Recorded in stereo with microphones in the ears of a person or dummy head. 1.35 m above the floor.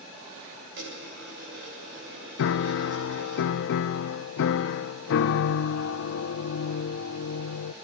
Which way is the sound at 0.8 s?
65° right (ahead or behind).